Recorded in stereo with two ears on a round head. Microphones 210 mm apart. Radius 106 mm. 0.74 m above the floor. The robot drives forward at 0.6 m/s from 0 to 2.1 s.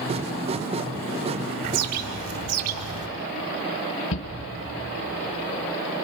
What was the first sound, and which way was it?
A bird, 75° right (ahead or behind).